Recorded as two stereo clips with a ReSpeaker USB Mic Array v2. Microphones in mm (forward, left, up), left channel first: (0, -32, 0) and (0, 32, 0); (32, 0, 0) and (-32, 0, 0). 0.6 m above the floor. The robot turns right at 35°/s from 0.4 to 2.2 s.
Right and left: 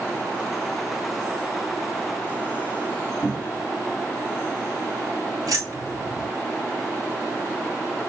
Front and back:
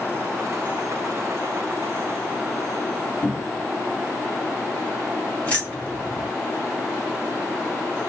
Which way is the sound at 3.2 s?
50° left.